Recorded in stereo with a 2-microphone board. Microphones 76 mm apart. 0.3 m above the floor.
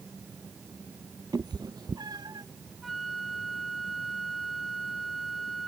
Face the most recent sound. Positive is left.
turn(degrees=0)  # may be behind; listen again after turning